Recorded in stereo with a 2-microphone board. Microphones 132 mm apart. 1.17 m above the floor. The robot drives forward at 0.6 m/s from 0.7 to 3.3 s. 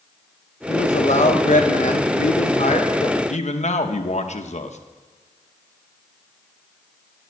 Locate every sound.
0.7 s a man speaking: 55° left (ahead or behind), 1.4 m; by 3.2 s 50° left (ahead or behind), 1.5 m
3.3 s a man speaking: 60° left (ahead or behind), 0.9 m